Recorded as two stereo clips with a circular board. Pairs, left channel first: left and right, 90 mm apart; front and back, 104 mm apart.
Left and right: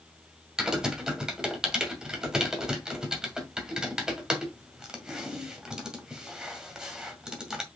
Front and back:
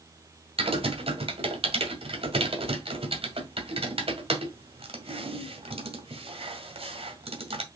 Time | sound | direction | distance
0.6 | typing on a keyboard | 170° right | 1.9 m